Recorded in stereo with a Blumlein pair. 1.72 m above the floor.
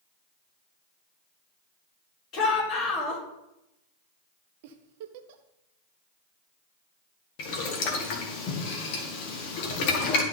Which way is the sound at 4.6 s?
50° right.